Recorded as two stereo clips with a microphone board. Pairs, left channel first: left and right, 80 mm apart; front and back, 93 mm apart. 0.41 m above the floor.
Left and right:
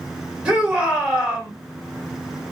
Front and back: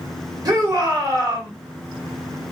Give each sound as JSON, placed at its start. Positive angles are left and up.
{"t": 0.5, "sound": "a shout", "azimuth_deg": -160, "distance_m": 1.6}